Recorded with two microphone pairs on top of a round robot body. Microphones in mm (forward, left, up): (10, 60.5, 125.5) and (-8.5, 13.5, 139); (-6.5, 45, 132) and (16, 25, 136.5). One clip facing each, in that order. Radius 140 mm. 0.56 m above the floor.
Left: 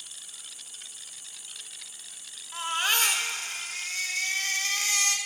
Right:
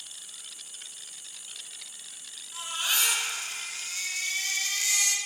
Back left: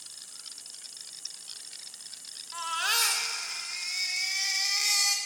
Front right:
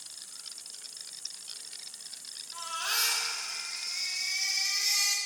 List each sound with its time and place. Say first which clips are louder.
0.0 s an insect: even, even; 125° right, 1.0 m
2.5 s a baby crying: left 4 dB, back left 4 dB; 115° left, 0.8 m